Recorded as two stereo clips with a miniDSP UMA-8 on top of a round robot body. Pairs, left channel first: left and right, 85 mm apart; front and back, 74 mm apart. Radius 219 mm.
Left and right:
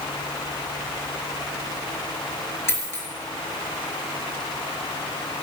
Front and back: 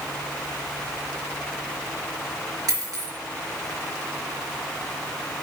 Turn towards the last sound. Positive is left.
turn(degrees=145)